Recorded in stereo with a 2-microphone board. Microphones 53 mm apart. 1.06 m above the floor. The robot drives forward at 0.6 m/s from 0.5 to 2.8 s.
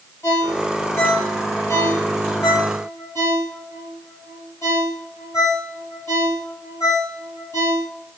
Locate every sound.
0.2 s a ringtone: 60° left (ahead or behind), 2.5 m; by 7.9 s 75° left (ahead or behind), 2 m